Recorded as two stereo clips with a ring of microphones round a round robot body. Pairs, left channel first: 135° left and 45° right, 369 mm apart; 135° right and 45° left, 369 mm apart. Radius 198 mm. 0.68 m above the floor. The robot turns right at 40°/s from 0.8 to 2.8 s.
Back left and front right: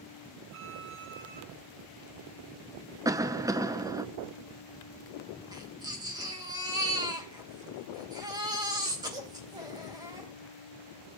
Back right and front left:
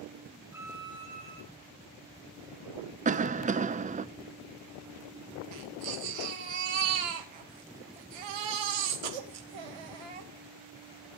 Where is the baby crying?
35° left, 3 m.